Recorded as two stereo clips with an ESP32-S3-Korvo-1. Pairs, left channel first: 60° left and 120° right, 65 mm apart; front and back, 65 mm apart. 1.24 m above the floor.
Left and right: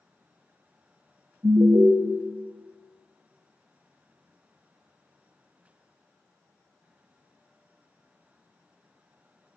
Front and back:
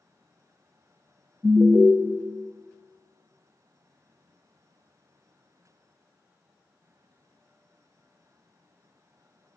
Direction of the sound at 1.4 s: 100° right.